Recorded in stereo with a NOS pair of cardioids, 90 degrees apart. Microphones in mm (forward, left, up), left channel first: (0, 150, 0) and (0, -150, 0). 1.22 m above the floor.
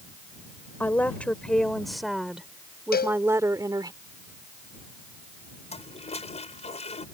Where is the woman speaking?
5° left; by 3.9 s 15° right.